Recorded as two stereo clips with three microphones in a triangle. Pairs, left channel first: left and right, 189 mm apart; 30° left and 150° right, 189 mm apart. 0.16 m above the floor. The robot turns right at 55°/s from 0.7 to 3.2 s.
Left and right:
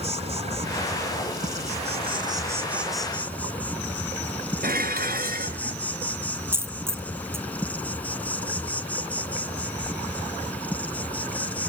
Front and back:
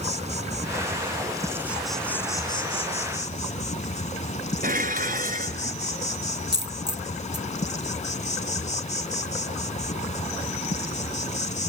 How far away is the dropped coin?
About 0.6 m.